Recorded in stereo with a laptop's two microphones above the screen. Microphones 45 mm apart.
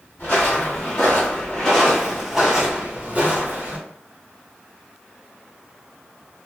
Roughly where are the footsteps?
Left.